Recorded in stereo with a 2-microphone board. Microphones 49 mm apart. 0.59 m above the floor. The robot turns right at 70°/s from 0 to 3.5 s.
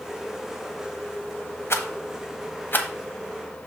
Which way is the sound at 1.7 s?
60° left (ahead or behind).